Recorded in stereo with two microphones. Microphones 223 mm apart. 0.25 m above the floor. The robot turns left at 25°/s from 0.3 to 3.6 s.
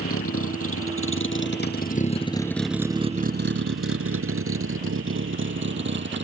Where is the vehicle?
80° left; by 6.2 s 55° right (ahead or behind).